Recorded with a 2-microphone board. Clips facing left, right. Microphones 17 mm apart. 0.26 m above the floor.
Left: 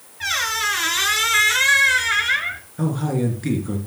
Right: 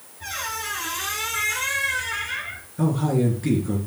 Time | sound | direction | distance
0.2 | a squeak | 65° left (ahead or behind) | 1.3 m
2.8 | a man speaking | 15° left (ahead or behind) | 3 m